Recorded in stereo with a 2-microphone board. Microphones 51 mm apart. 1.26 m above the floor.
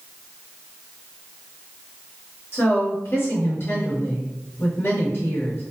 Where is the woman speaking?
50° left (ahead or behind), 1.9 m.